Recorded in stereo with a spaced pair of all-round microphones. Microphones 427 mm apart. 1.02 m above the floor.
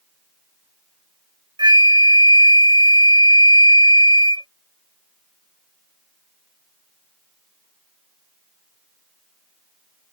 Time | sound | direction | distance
1.6 | a flute | 10° right (ahead or behind) | ?